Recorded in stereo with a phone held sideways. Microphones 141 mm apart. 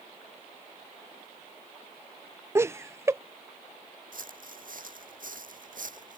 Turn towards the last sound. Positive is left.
turn(degrees=-70)  # may be behind; listen again after turning